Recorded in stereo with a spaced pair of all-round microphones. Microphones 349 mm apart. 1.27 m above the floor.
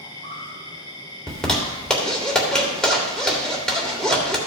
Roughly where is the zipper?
Centre.